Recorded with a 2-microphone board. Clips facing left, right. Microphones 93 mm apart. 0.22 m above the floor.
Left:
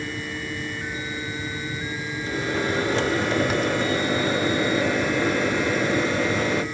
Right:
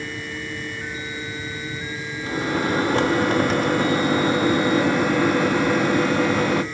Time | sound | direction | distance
2.2 | a microwave | 50° right (ahead or behind) | 1.5 m